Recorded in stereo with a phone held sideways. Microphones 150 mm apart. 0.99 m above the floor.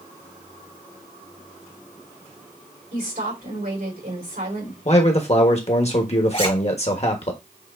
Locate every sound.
2.9 s a woman speaking: 85° right, 3.5 m
4.8 s a man speaking: 45° left (ahead or behind), 1.2 m
6.3 s a zipper: 50° left (ahead or behind), 2 m